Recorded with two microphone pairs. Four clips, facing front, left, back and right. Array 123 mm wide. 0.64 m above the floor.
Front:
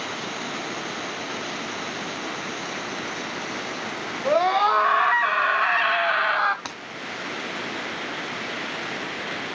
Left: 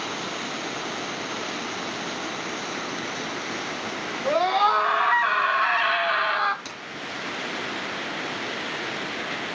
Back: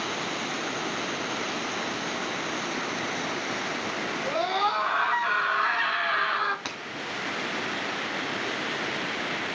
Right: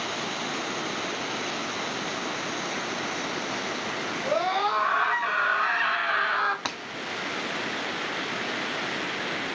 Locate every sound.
4.2 s a scream: 30° left, 5.5 m; by 6.5 s 20° left, 4.5 m
6.7 s breaking glass: 80° right, 1.8 m